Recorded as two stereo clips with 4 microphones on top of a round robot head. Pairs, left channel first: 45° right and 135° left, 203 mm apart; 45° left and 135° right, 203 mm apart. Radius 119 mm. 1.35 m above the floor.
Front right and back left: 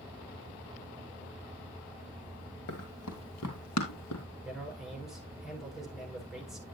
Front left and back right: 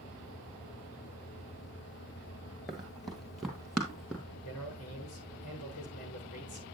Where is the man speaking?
45° left, 7 m.